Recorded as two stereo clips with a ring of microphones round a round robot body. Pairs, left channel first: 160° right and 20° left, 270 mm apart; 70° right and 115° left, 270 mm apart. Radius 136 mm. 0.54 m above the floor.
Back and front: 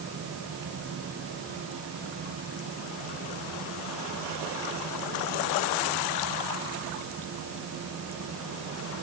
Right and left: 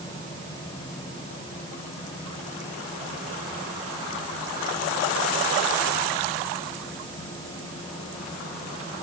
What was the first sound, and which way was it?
Only background noise.